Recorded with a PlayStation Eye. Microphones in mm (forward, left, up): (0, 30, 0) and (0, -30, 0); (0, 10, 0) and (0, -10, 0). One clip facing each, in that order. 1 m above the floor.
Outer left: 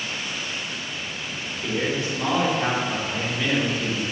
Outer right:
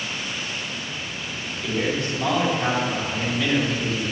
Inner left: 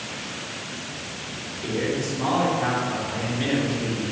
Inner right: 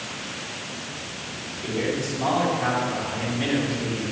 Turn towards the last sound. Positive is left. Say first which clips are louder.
# outer right 1 dB, even
turn(degrees=20)  # may be behind; listen again after turning